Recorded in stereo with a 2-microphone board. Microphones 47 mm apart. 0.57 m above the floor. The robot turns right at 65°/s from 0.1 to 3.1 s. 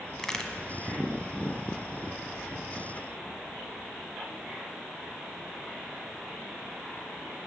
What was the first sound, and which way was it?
A crack, 5° left (ahead or behind).